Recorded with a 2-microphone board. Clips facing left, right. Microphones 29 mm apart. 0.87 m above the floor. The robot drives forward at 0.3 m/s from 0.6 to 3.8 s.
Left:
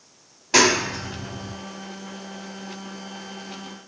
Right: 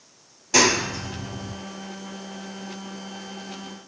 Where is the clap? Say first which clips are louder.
Left 2 dB; 30° left (ahead or behind), 1.9 m; by 1.5 s 35° left (ahead or behind), 1.7 m.